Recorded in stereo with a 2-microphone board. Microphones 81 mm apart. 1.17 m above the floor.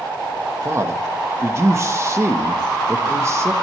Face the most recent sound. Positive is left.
turn(degrees=-35)  # may be behind; listen again after turning